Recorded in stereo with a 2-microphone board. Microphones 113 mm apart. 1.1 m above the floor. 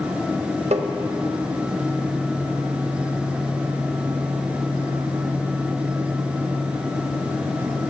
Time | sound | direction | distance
0.7 | tapping | 80° right | 0.7 m